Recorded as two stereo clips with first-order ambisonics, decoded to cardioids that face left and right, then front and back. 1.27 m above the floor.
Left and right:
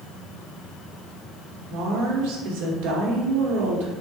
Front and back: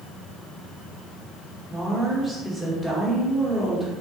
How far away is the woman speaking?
About 1.3 m.